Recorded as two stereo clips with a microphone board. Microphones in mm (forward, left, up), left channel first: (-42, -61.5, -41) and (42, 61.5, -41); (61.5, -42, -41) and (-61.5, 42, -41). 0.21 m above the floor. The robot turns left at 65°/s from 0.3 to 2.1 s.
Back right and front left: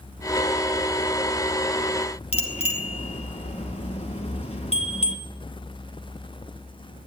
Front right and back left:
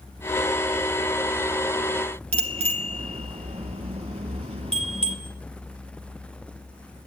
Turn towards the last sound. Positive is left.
turn(degrees=-170)